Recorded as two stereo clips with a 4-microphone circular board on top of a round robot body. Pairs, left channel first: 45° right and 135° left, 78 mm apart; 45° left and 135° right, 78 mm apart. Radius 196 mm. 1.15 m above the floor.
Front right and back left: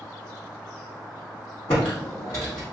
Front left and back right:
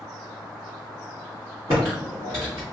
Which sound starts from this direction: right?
Typing on a keyboard, at 1.7 s.